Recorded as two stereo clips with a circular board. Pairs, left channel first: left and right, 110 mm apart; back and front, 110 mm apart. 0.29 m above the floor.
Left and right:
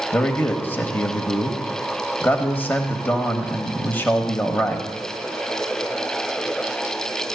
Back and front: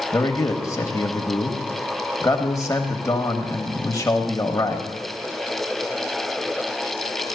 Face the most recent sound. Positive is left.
turn(degrees=150)